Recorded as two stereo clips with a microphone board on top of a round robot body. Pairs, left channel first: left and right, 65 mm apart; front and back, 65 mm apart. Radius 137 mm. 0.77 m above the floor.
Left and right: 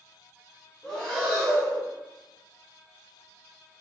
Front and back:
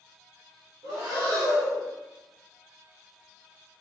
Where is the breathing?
165° left, 1.1 m.